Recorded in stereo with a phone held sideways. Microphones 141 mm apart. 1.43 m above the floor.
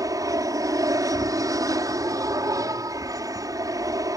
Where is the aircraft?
25° right (ahead or behind).